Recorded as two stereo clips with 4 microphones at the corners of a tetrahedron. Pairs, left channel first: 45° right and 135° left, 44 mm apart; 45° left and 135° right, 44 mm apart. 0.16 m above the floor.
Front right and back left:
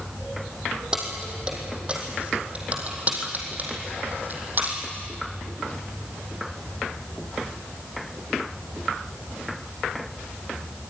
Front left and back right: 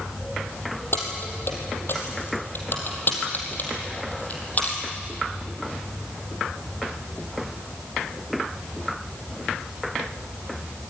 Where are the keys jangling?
65° left, 4.5 m; by 4.8 s 95° left, 4.5 m.